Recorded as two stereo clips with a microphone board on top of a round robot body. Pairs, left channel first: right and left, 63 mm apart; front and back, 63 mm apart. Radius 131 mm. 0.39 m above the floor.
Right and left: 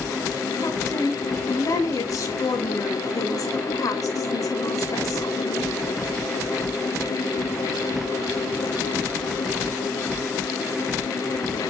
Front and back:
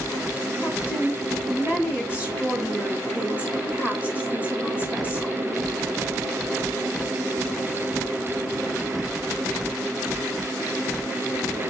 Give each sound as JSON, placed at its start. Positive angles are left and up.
{"t": 0.6, "sound": "a woman speaking", "azimuth_deg": -110, "distance_m": 5.0}